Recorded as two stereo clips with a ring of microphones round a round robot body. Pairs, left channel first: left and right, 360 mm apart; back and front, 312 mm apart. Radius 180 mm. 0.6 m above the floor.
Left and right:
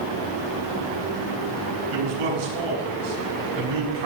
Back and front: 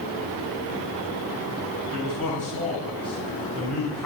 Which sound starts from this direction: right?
A man speaking, at 1.9 s.